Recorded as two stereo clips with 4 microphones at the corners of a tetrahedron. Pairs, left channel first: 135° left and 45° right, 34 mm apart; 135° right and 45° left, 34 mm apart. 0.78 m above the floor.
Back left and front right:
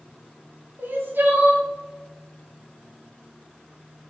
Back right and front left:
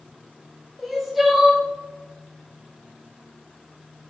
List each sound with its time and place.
0.8 s crying: 40° right, 1.6 m